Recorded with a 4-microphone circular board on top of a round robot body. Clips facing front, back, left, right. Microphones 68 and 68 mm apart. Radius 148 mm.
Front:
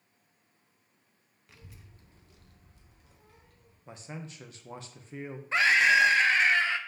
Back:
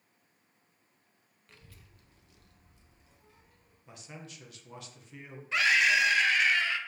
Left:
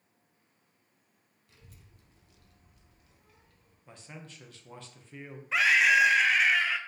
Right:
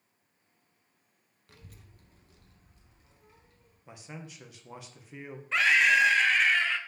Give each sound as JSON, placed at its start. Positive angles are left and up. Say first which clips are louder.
{"t": 1.5, "sound": "a child speaking", "louder": "front 3 dB, right 4 dB", "azimuth_deg": -85, "distance_m": 0.6}
{"t": 3.9, "sound": "a man speaking", "louder": "front 5 dB, right 3 dB", "azimuth_deg": -20, "distance_m": 0.7}
{"t": 5.5, "sound": "a scream", "louder": "front 3 dB, even", "azimuth_deg": 10, "distance_m": 0.7}